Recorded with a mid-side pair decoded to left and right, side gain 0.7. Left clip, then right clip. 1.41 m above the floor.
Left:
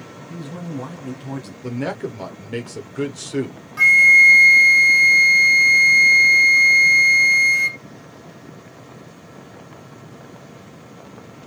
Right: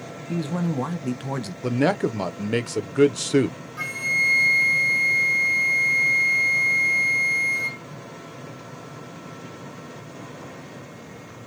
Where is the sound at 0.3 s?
35° right, 0.9 m.